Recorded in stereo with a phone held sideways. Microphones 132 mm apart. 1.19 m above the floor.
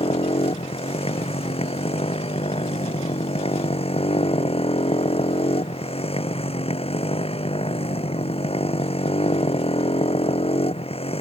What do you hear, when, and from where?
0.0 s a motorcycle: 45° left (ahead or behind)